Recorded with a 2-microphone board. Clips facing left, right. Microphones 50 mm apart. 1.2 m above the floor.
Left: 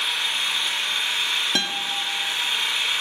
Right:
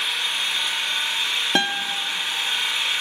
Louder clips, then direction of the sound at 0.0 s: Even; 5° right (ahead or behind).